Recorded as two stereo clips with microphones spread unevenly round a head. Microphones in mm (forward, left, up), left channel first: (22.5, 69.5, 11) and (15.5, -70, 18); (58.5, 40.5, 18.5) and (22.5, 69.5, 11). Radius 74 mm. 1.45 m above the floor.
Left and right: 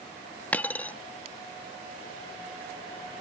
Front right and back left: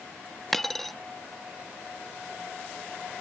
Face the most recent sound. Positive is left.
turn(degrees=15)